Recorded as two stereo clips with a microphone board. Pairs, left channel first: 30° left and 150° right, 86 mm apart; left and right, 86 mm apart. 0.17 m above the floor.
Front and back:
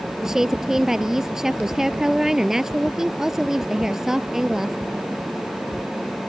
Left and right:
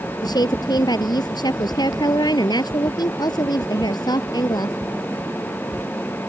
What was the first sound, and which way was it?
A woman speaking, 125° left.